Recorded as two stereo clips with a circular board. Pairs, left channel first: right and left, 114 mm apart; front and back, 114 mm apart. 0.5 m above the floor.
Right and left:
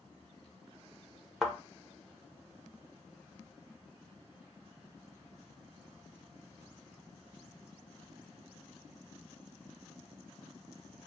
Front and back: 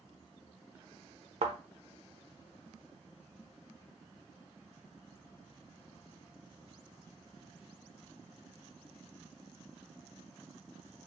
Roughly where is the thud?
Behind.